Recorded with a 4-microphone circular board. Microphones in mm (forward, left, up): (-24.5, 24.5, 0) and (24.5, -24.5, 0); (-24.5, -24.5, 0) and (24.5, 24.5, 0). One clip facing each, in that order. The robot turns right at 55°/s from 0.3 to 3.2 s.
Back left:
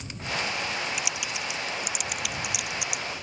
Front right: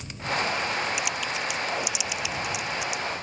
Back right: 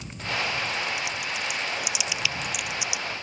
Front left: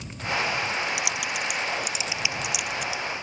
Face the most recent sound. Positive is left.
turn(degrees=165)